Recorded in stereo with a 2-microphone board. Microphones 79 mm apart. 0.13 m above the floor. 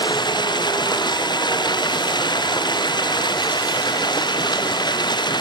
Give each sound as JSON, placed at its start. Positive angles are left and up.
{"t": 0.0, "sound": "running water", "side_deg": 70, "distance_m": 2.5}